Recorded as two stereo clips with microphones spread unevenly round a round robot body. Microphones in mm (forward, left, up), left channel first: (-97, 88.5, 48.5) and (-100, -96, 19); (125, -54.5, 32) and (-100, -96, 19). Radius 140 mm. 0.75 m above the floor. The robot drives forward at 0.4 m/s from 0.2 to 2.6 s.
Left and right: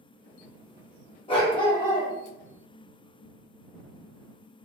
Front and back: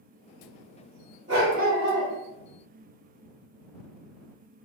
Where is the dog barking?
140° left, 0.8 m; by 2.1 s 155° left, 1.0 m.